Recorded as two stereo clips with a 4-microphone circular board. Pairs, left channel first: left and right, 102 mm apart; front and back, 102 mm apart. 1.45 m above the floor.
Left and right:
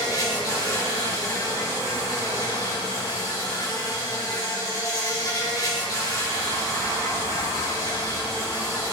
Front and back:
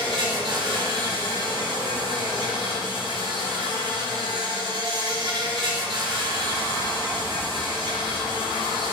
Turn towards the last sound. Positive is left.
turn(degrees=140)